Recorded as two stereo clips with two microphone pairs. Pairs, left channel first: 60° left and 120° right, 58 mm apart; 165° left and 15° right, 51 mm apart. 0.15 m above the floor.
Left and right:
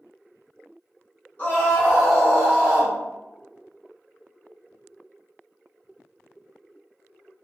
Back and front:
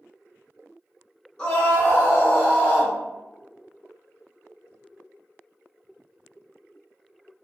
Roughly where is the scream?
Left.